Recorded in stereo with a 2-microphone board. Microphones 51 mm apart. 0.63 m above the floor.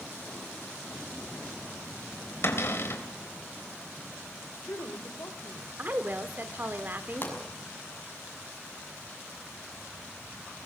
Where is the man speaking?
60° left (ahead or behind), 3 m.